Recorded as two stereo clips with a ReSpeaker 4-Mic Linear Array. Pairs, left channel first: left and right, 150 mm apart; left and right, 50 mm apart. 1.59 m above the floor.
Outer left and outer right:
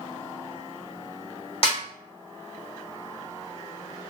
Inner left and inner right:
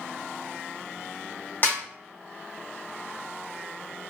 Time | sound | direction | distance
1.6 | a snare drum | 40° left (ahead or behind) | 1.3 m